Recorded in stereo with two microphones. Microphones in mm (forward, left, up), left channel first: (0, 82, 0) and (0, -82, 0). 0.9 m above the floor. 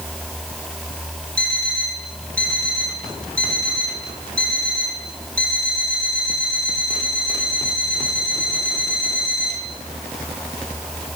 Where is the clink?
I don't hear a clink.